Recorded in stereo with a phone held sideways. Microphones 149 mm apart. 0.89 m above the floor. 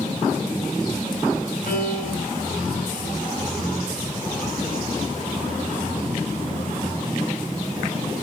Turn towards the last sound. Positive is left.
turn(degrees=75)  # may be behind; listen again after turning